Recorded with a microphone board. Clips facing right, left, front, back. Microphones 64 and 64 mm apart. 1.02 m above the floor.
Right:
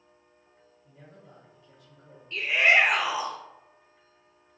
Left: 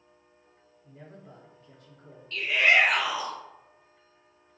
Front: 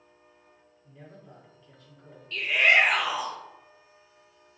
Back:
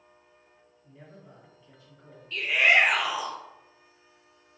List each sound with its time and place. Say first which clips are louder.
0.8 s a man speaking: left 4 dB, front 1 dB; 105° left, 1.0 m
2.3 s a shout: right 1 dB, even; 100° right, 0.5 m